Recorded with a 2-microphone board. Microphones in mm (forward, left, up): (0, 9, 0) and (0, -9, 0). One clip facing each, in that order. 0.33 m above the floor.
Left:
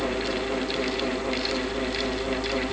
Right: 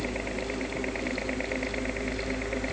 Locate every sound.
0.0 s a helicopter: 70° right (ahead or behind); by 2.7 s 75° right (ahead or behind)